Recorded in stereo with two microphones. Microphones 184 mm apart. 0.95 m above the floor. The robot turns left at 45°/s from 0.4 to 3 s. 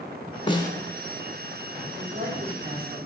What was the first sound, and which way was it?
A snare drum, 25° left (ahead or behind).